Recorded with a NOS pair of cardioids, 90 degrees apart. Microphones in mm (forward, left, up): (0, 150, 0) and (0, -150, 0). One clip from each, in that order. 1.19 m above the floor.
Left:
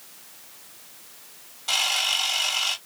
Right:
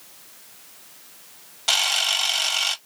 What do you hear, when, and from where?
1.7 s a camera shutter: 55° right, 1.7 m